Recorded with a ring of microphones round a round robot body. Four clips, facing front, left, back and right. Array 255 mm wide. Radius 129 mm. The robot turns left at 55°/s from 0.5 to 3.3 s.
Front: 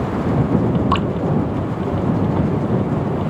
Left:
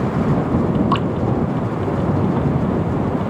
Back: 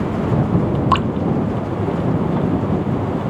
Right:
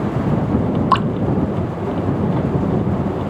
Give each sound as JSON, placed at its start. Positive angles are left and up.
{"t": 0.9, "sound": "dripping", "azimuth_deg": -125}